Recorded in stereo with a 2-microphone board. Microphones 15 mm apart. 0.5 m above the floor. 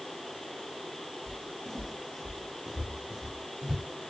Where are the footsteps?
5° left (ahead or behind), 1.1 m; by 3.8 s 10° right (ahead or behind), 3 m.